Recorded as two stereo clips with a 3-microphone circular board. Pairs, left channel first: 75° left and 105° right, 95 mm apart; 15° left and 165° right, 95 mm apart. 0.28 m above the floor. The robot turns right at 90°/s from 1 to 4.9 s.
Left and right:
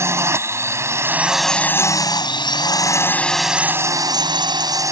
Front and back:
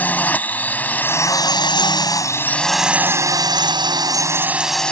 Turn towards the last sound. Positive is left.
turn(degrees=-60)